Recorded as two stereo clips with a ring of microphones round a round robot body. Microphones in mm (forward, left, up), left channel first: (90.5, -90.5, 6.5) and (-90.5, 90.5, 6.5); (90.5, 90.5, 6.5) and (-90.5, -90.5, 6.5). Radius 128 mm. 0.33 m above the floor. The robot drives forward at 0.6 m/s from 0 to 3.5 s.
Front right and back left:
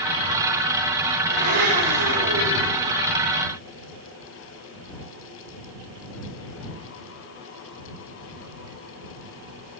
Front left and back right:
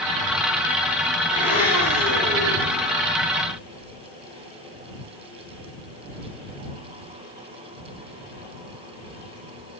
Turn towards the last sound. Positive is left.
turn(degrees=150)